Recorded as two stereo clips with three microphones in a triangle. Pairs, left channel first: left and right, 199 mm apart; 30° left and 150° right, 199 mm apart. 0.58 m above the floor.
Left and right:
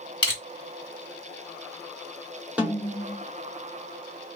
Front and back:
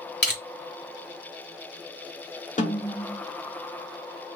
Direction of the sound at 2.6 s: 10° right.